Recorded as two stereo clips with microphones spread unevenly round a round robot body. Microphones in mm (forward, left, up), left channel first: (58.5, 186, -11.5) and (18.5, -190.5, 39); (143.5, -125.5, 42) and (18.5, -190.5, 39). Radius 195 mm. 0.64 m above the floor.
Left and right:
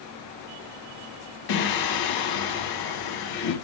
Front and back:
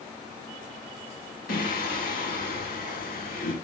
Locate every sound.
1.5 s singing: 55° left, 2.5 m